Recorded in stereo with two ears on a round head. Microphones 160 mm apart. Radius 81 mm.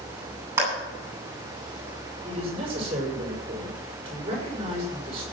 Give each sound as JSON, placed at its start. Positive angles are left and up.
{"t": 0.6, "sound": "a clap", "side_deg": -15, "distance_m": 9.0}
{"t": 2.2, "sound": "a man speaking", "side_deg": -35, "distance_m": 6.5}